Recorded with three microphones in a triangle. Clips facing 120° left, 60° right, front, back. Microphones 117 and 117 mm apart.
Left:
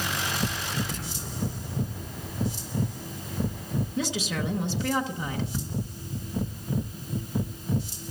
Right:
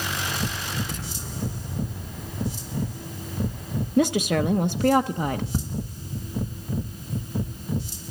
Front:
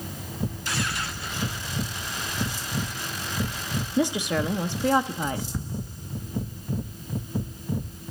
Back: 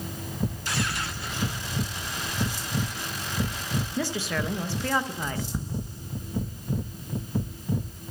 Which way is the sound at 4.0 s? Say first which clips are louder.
Right 12 dB, front 7 dB; 70° right.